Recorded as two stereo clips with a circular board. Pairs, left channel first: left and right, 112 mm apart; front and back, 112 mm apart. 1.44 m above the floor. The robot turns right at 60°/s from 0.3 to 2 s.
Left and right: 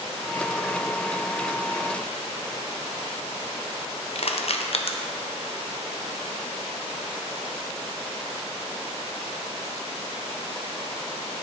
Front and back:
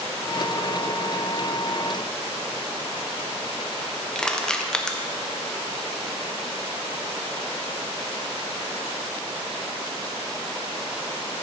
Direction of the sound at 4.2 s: 85° left.